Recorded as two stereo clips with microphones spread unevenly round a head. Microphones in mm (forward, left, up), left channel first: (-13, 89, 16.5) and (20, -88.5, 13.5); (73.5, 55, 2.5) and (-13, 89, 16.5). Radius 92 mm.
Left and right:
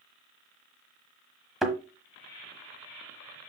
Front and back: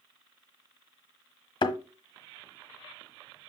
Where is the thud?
10° left, 1.3 m.